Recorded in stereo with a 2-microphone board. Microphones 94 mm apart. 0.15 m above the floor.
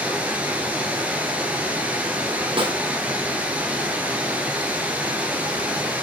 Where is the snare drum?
65° right (ahead or behind), 3 m.